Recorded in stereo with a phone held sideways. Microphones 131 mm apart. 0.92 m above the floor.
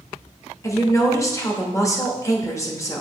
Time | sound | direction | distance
0.6 | a woman speaking | 20° left (ahead or behind) | 1.3 m